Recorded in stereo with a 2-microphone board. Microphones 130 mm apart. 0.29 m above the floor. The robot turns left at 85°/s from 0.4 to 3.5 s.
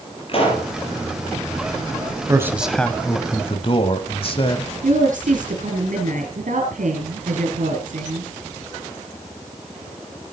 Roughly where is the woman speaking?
Right.